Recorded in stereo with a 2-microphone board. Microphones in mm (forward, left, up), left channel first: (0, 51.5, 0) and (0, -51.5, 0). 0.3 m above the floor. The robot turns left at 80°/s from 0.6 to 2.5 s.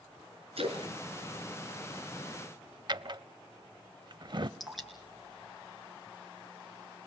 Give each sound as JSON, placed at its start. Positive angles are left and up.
{"t": 0.6, "sound": "a splash", "side_deg": -70, "distance_m": 3.5}
{"t": 2.9, "sound": "a drawer", "side_deg": -45, "distance_m": 0.6}
{"t": 4.6, "sound": "dripping", "side_deg": 0, "distance_m": 4.0}